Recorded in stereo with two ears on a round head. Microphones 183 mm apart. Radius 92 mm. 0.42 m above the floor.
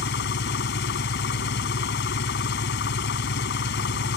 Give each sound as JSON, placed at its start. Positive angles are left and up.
{"t": 0.0, "sound": "an engine running", "side_deg": 55}